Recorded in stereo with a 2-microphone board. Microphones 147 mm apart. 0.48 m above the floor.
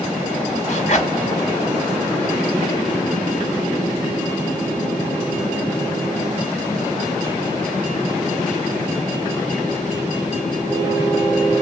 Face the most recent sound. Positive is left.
turn(degrees=55)  # may be behind; listen again after turning